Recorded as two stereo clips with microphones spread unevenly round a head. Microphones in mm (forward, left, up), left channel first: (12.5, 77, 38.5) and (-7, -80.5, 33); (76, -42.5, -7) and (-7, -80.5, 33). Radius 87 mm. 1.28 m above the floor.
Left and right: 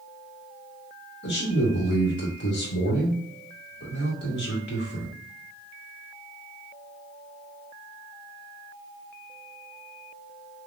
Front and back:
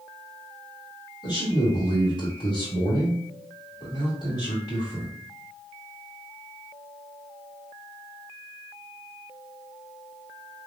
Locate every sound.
1.2 s a man speaking: 70° left, 1.7 m